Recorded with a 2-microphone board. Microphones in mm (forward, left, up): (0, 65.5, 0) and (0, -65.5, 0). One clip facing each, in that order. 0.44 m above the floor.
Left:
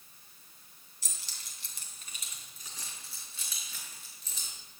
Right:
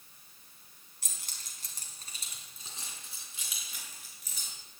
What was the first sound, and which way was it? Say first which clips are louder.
Keys jangling: right 1 dB; 55° right (ahead or behind).